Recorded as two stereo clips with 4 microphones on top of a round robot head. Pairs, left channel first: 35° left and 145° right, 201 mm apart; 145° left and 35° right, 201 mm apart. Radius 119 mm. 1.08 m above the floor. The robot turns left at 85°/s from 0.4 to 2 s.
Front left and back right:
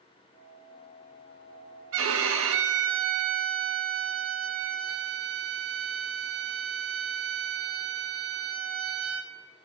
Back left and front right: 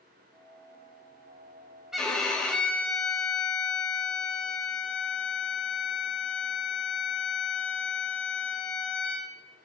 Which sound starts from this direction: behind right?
A violin, at 1.9 s.